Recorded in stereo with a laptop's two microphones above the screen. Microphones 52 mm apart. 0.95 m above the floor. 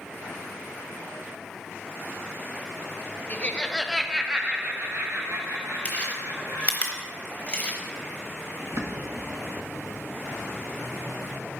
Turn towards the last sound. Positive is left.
turn(degrees=-65)  # may be behind; listen again after turning